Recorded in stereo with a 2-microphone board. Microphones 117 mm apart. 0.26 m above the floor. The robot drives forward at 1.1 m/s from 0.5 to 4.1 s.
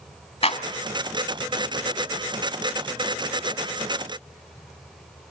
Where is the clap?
55° left (ahead or behind), 1.6 m; by 0.6 s 50° left (ahead or behind), 1.6 m.